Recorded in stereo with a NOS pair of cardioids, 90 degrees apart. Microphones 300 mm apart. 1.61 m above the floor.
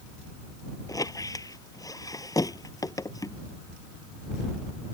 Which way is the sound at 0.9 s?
10° left.